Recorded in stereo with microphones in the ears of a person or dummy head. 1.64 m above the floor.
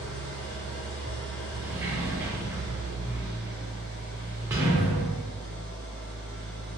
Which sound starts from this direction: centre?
A sliding door, at 1.6 s.